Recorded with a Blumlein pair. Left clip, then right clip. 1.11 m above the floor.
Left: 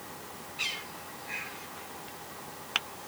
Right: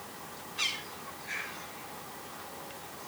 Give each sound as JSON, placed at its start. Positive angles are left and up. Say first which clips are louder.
{"t": 0.6, "sound": "a bird", "louder": "right 1 dB", "azimuth_deg": -45, "distance_m": 5.0}